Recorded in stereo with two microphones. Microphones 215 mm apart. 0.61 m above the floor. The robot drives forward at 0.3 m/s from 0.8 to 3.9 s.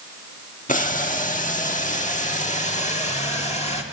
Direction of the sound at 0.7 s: 35° left (ahead or behind).